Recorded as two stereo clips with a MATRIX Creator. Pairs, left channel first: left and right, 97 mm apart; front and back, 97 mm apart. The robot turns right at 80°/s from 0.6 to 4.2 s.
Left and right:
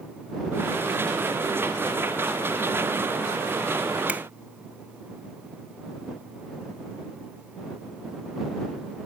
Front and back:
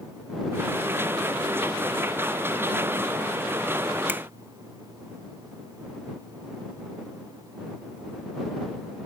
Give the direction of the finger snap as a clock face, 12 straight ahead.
5 o'clock.